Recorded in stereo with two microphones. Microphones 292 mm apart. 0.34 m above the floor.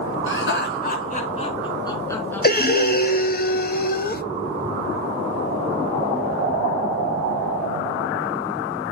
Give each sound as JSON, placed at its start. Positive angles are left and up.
{"t": 0.3, "sound": "laughter", "side_deg": 45, "distance_m": 4.0}
{"t": 2.4, "sound": "breathing", "side_deg": 30, "distance_m": 0.7}